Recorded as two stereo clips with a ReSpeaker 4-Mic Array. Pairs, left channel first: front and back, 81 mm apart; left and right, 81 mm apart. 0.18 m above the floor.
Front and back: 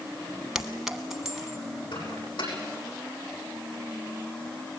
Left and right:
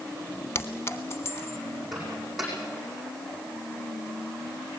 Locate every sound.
0.6 s a clink: 100° left, 1.1 m
1.9 s a microwave: straight ahead, 7.5 m